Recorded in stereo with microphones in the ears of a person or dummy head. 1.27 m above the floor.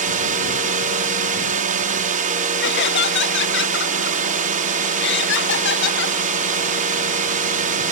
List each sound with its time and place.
0.0 s a drone: 40° right (ahead or behind)
2.6 s laughter: 50° left (ahead or behind)